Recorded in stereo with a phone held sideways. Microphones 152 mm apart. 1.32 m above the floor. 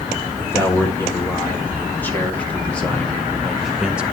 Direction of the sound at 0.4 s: 15° left (ahead or behind).